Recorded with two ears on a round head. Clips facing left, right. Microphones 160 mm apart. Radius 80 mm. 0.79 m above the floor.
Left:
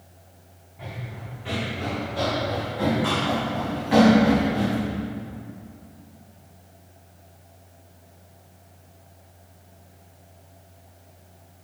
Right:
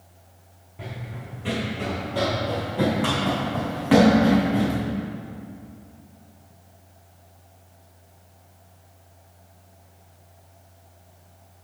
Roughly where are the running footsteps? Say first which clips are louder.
Right 1 dB; right.